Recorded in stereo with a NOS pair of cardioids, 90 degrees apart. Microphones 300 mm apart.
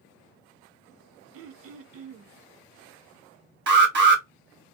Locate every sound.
1.3 s throat clearing: 50° right, 0.5 m
3.7 s an alarm: 40° right, 1.3 m